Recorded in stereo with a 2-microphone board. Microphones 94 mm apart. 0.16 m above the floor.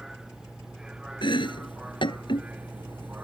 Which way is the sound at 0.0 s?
5° right (ahead or behind).